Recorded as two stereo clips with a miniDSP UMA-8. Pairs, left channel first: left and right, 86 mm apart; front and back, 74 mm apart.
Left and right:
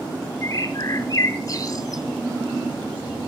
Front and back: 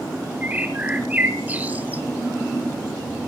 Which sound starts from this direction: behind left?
A bird, at 0.4 s.